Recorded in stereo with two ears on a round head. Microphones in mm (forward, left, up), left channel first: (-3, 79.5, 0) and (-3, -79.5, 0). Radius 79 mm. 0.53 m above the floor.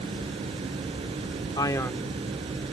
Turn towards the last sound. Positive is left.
turn(degrees=-5)  # may be behind; listen again after turning